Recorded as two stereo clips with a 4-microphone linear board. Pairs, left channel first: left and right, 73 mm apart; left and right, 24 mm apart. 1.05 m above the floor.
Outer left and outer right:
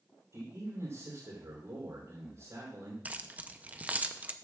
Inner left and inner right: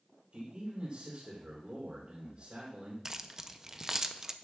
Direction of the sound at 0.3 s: 55° right (ahead or behind).